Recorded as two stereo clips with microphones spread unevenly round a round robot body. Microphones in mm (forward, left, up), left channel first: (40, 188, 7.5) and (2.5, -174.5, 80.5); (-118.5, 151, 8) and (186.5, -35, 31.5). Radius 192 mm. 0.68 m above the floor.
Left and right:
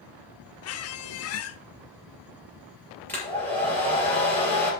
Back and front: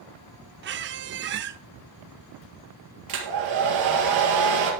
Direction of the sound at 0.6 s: 30° left.